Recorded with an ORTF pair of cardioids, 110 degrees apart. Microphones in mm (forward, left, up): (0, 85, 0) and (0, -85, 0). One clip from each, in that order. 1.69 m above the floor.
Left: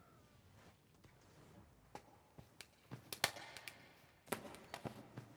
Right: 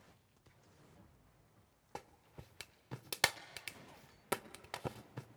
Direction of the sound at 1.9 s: 30° right.